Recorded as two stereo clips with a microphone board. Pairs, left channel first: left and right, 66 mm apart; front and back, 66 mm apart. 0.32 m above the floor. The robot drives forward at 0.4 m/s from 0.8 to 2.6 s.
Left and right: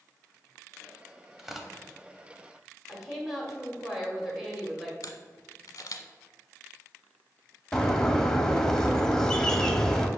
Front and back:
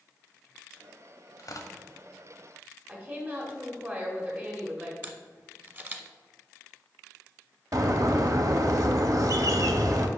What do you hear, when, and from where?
1.4 s tearing paper: 5° right, 0.8 m
2.9 s a woman speaking: 170° right, 1.4 m
5.0 s a camera shutter: 120° left, 0.7 m
7.7 s a bird: 170° left, 0.6 m